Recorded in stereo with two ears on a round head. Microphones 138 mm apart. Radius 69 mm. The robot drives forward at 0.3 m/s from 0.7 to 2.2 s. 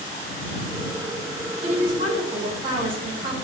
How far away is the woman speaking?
About 1.0 m.